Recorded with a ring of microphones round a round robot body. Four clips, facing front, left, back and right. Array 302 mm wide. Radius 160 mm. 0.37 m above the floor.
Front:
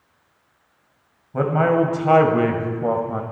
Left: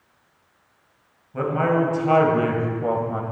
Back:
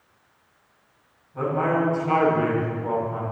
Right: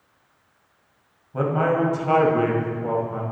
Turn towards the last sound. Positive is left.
turn(degrees=30)